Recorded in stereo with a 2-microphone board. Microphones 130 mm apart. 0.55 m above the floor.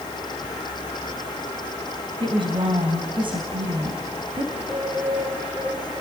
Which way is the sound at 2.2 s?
40° right (ahead or behind).